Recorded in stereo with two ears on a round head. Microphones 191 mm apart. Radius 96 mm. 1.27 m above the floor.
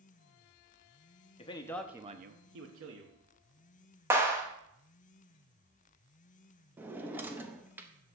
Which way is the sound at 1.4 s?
25° left (ahead or behind).